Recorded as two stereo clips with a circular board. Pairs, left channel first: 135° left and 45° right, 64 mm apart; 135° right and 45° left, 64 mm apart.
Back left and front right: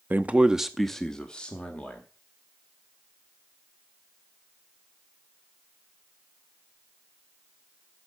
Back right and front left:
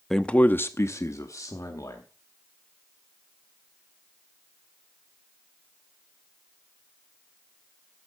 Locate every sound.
0.1 s a man speaking: 55° right, 0.6 m; by 2.0 s 155° right, 1.6 m